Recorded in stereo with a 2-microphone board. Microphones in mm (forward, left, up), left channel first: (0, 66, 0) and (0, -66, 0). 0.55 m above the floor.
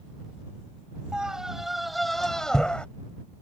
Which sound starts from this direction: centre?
A scream, at 1.1 s.